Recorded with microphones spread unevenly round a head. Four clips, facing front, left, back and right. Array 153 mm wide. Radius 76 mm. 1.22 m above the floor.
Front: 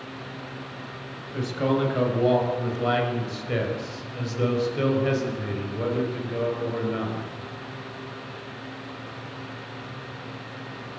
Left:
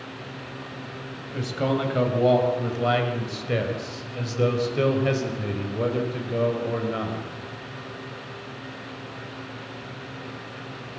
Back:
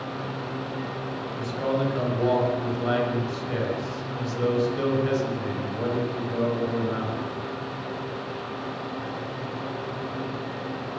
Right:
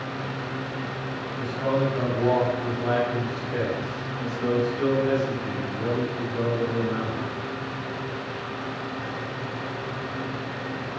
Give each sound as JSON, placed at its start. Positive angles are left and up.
{"t": 1.3, "sound": "a man speaking", "azimuth_deg": 75, "distance_m": 7.0}